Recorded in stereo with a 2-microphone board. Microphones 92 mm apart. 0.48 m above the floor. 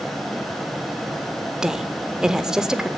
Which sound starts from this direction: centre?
A woman speaking, at 1.6 s.